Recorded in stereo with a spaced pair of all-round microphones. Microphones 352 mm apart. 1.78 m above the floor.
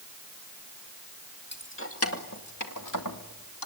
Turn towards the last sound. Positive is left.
turn(degrees=70)  # may be behind; listen again after turning